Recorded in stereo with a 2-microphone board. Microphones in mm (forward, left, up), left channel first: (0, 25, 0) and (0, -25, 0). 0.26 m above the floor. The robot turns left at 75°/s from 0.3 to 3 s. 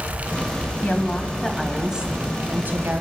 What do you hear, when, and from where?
0.8 s a woman speaking: 60° left, 1.6 m; by 3.0 s 100° right, 1.6 m